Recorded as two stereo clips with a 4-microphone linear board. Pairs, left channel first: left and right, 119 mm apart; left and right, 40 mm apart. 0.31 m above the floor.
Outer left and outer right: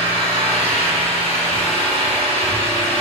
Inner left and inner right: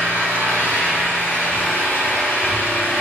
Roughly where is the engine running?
Left.